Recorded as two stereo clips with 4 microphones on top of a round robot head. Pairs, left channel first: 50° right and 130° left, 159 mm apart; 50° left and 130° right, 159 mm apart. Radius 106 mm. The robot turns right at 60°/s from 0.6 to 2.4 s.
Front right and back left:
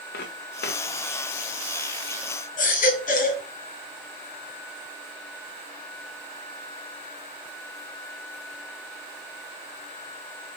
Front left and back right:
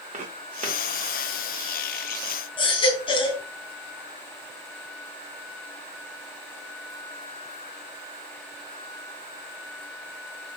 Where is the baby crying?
10° right, 3.5 m.